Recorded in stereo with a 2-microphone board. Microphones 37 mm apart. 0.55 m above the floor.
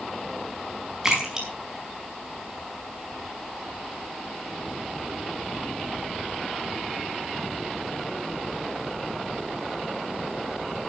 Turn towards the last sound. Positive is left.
turn(degrees=-15)  # may be behind; listen again after turning